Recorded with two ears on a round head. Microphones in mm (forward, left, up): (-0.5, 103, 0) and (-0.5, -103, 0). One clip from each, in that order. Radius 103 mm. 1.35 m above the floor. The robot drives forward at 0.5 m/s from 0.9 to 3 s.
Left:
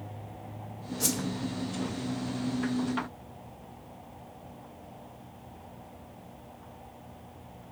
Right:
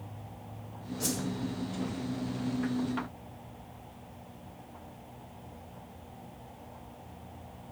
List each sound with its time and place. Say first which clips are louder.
1.0 s a whoosh: left 3 dB; 20° left (ahead or behind), 1.0 m